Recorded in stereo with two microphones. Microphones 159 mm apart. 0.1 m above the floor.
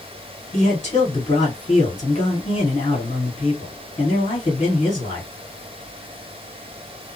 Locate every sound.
0.5 s a man speaking: 40° left (ahead or behind), 1.9 m